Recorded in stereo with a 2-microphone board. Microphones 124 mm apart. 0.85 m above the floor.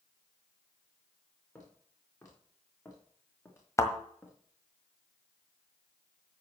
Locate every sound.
1.6 s footsteps: 25° left (ahead or behind), 5 m; by 4.3 s 20° left (ahead or behind), 3.5 m
3.8 s a thud: 25° left (ahead or behind), 1.5 m